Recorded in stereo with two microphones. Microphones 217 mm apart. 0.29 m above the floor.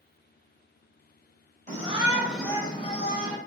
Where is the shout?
35° right (ahead or behind), 1.3 m; by 3.4 s 45° left (ahead or behind), 1.6 m.